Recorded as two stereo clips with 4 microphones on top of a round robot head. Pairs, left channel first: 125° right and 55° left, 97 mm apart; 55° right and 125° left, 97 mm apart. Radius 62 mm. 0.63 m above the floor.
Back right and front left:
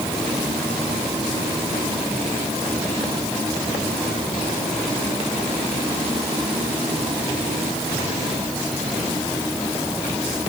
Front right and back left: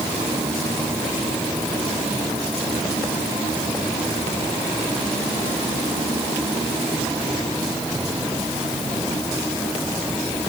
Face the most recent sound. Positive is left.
No sound to turn to.